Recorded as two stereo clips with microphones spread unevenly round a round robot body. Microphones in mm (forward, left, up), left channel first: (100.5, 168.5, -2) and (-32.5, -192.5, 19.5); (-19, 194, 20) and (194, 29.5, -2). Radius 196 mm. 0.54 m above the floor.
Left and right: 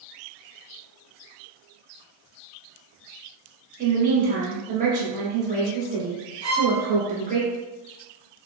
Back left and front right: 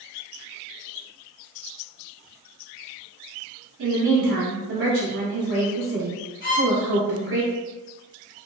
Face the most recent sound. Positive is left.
turn(degrees=145)